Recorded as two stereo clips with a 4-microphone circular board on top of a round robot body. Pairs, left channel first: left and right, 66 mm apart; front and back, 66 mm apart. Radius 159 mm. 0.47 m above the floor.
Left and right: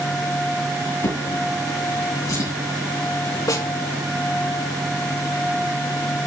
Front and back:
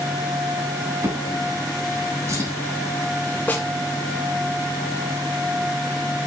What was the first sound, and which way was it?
A drawer, 130° left.